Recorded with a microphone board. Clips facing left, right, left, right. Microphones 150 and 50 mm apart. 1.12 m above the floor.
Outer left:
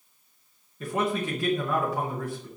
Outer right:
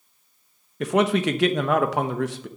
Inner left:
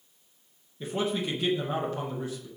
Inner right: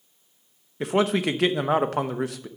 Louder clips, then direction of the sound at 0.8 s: Outer right 7 dB, inner right 7 dB; 75° right (ahead or behind).